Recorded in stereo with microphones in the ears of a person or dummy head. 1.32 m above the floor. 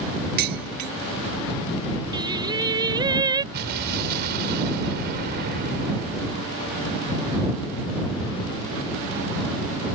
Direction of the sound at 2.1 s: 20° right (ahead or behind).